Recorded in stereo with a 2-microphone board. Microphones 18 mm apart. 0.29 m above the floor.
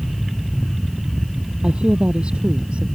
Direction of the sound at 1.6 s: 65° right (ahead or behind).